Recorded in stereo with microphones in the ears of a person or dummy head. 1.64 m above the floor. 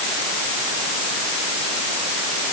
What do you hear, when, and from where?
Only background noise.